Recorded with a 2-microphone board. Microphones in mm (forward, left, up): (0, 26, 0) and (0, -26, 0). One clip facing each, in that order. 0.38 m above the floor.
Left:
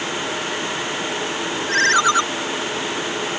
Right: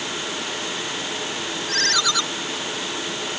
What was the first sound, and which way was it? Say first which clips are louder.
A ringtone: left 8 dB; 30° left (ahead or behind).